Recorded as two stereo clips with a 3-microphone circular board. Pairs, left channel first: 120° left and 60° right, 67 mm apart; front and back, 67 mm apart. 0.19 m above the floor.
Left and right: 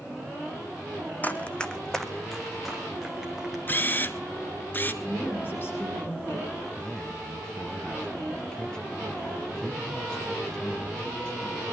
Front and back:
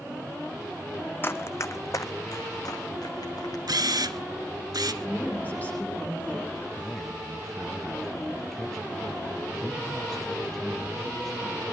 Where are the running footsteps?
55° left, 0.7 m; by 3.6 s 25° left, 1.7 m.